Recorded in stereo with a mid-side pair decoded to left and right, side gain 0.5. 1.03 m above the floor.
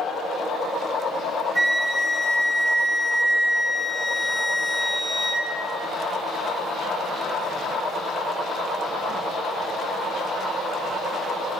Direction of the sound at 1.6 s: 5° right.